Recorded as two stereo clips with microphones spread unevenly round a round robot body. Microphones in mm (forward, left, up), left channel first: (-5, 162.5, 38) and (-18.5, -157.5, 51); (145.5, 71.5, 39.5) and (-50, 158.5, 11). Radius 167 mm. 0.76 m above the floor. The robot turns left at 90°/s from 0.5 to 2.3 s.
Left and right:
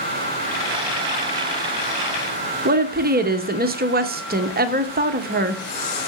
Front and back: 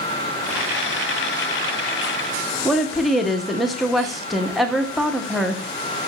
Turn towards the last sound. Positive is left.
turn(degrees=-130)